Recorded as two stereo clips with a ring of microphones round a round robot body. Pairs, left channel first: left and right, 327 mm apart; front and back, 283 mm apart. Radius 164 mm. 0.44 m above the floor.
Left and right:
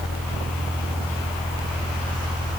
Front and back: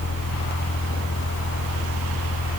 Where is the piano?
I don't hear a piano.